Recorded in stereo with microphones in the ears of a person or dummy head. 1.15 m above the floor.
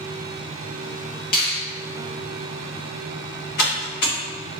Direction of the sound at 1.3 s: 50° left (ahead or behind).